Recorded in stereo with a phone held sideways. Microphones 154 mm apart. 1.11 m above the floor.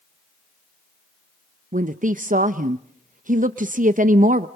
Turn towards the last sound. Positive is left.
turn(degrees=-60)  # may be behind; listen again after turning